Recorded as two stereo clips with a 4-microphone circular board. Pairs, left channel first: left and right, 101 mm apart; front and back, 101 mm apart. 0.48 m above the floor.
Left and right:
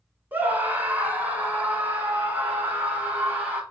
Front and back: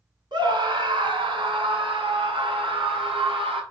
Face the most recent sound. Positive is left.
turn(degrees=-160)